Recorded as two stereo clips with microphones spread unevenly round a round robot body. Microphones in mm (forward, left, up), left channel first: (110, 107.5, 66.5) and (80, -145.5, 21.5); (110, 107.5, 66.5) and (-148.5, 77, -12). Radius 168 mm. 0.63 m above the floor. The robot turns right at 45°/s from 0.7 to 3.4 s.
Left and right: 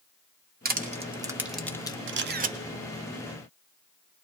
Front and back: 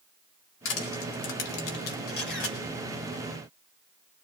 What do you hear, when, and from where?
0.7 s crushing: 50° right, 1.0 m; by 2.0 s 5° left, 1.0 m
2.1 s a camera shutter: 50° right, 0.6 m; by 2.6 s 30° right, 0.6 m